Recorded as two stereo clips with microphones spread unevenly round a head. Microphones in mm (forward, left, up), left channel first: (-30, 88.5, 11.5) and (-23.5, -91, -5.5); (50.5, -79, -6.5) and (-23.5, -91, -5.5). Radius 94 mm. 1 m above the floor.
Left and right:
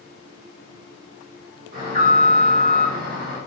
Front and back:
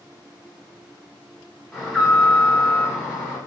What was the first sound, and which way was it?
An alarm, 80° right.